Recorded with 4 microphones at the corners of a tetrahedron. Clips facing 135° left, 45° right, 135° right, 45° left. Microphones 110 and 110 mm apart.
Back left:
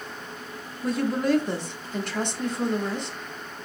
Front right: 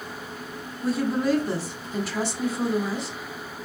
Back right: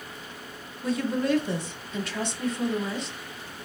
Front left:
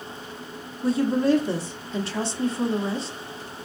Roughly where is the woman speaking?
Ahead left.